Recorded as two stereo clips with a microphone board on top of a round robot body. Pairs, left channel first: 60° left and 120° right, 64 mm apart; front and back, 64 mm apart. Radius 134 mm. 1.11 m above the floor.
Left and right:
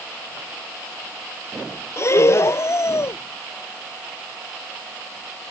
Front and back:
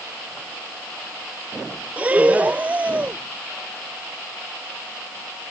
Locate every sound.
2.0 s breathing: 110° left